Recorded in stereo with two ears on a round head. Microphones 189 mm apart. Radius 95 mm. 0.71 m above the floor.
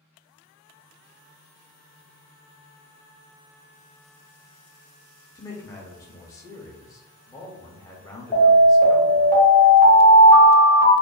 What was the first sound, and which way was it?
A man speaking, 15° left (ahead or behind).